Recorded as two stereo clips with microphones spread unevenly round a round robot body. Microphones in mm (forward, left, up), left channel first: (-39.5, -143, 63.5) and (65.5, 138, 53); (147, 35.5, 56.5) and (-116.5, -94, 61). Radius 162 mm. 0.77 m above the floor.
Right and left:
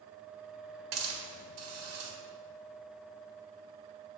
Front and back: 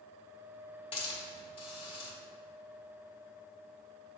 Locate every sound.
0.9 s a hiss: 95° left, 1.5 m